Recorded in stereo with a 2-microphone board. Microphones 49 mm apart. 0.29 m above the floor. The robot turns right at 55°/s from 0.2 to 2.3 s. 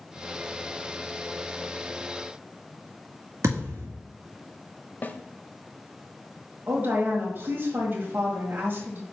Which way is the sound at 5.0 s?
40° left (ahead or behind).